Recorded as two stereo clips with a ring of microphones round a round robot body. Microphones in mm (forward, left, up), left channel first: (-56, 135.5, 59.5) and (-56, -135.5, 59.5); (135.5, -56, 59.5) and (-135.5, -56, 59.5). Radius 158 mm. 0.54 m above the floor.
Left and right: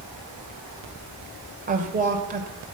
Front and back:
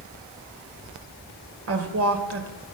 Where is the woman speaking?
150° right, 2.5 m.